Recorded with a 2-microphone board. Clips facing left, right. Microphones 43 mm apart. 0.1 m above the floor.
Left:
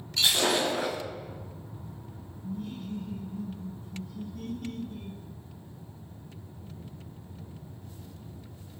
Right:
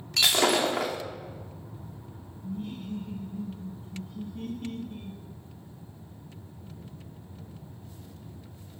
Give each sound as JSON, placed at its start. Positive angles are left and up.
{"t": 0.2, "sound": "breaking glass", "side_deg": -70, "distance_m": 2.5}
{"t": 2.4, "sound": "laughter", "side_deg": -25, "distance_m": 2.0}